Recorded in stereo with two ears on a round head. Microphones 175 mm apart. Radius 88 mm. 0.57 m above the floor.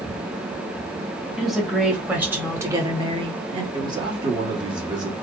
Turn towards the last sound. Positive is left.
turn(degrees=-25)  # may be behind; listen again after turning